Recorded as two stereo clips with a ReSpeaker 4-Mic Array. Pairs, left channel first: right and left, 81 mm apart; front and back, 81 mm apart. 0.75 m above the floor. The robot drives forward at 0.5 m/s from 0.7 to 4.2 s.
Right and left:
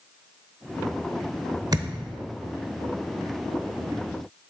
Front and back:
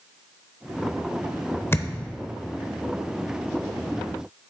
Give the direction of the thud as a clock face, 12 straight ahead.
10 o'clock.